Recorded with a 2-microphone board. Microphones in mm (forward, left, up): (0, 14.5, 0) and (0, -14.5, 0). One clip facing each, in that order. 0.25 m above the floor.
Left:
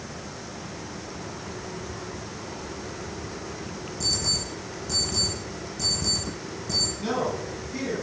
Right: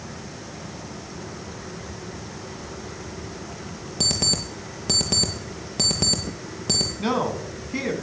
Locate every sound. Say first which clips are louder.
4.0 s an alarm clock: right 4 dB; 55° right (ahead or behind), 2.5 m
7.0 s a man speaking: right 3 dB; 35° right (ahead or behind), 3 m